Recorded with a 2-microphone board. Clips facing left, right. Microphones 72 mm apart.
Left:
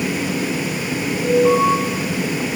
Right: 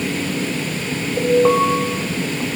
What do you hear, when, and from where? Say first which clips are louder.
1.2 s an alarm: right 1 dB; 35° right (ahead or behind), 4 m